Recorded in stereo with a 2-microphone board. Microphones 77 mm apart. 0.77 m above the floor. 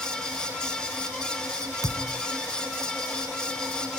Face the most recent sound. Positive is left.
turn(degrees=-55)  # may be behind; listen again after turning